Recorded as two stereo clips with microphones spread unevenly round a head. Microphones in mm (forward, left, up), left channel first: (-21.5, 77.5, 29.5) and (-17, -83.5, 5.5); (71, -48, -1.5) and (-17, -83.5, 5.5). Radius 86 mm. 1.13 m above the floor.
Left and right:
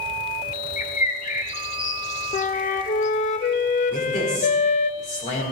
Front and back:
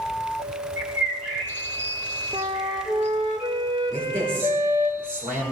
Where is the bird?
130° left, 1.3 m.